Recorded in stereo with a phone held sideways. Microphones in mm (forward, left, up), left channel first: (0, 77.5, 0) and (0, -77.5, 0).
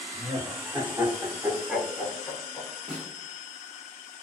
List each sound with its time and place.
0.1 s laughter: 25° right (ahead or behind), 1.0 m; by 2.7 s 20° left (ahead or behind), 0.7 m
2.9 s a snare drum: 35° right (ahead or behind), 1.2 m